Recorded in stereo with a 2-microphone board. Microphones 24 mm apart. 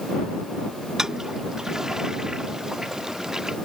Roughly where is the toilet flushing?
Right.